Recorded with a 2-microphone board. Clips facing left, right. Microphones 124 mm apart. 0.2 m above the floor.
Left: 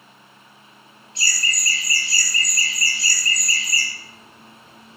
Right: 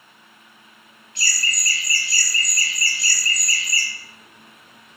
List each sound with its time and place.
1.1 s laughter: 25° left (ahead or behind), 1.3 m